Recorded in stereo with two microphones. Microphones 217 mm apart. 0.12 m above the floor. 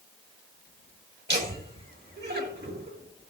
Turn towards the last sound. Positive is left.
turn(degrees=-50)  # may be behind; listen again after turning